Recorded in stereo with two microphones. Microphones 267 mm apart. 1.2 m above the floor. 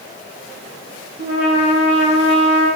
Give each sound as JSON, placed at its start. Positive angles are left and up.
{"t": 1.2, "sound": "a trumpet", "side_deg": -60, "distance_m": 5.5}